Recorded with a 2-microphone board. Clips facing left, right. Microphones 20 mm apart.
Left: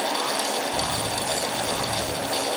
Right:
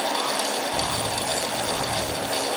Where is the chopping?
No chopping in this recording.